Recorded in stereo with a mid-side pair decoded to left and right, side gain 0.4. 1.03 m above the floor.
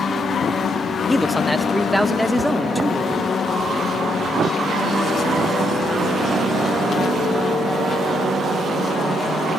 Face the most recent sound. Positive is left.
turn(degrees=-15)